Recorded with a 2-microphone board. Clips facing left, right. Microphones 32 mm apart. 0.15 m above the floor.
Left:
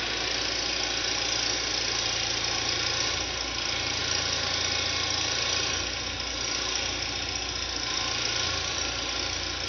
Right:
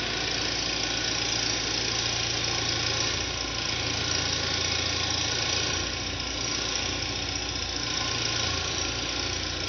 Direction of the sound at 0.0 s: Centre (ahead or behind).